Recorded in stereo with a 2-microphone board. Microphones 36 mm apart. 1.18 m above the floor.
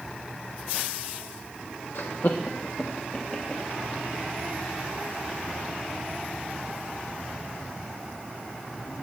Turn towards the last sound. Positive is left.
turn(degrees=10)  # may be behind; listen again after turning